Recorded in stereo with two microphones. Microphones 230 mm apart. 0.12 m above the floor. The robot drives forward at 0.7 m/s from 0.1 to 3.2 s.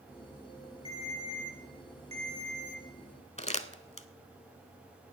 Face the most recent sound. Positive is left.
turn(degrees=30)  # may be behind; listen again after turning